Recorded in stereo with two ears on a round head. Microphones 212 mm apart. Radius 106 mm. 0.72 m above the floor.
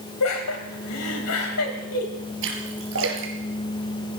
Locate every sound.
0.2 s laughter: 70° left (ahead or behind), 5 m
2.4 s a splash: 55° right (ahead or behind), 4.5 m